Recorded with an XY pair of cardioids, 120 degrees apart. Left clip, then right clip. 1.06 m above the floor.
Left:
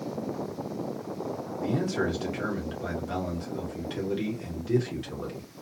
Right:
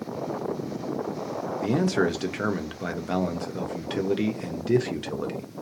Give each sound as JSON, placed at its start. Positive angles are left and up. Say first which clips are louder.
{"t": 1.6, "sound": "a man speaking", "louder": "right 4 dB", "azimuth_deg": -45, "distance_m": 1.0}